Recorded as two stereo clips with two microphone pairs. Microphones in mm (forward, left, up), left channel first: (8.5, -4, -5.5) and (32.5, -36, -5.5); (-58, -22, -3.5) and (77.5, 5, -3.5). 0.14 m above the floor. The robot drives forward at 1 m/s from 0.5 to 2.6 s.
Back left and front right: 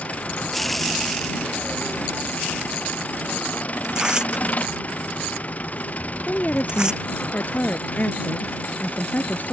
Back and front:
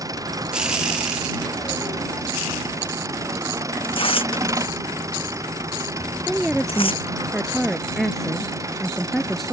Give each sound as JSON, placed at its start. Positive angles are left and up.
{"t": 0.0, "sound": "an engine running", "azimuth_deg": 75}
{"t": 3.8, "sound": "tearing paper", "azimuth_deg": -120}
{"t": 6.3, "sound": "a woman speaking", "azimuth_deg": 100}